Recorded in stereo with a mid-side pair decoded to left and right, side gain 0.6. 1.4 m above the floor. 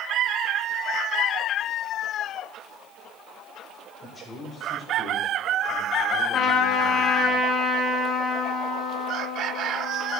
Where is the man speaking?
10° left, 6 m.